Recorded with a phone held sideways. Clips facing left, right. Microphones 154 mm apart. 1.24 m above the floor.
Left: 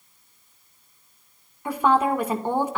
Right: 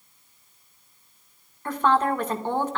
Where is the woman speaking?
10° left (ahead or behind), 1.7 m.